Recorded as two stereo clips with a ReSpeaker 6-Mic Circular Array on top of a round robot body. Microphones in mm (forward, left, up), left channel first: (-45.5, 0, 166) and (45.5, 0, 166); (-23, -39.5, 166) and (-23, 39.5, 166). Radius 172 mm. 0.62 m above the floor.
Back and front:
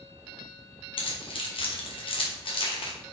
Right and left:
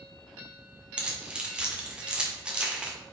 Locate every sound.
1.0 s keys jangling: 165° left, 1.7 m